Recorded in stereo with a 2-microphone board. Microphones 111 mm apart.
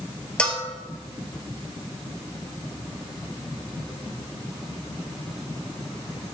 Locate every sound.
0.4 s a bell: 10° left (ahead or behind), 1.2 m